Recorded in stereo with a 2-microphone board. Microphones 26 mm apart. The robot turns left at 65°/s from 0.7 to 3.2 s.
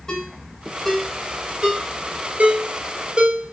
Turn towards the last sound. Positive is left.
turn(degrees=-40)  # may be behind; listen again after turning